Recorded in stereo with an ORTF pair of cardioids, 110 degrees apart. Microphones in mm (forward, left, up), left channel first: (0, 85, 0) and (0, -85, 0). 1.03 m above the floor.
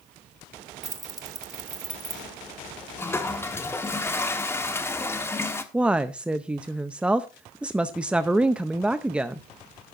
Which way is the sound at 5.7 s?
5° right.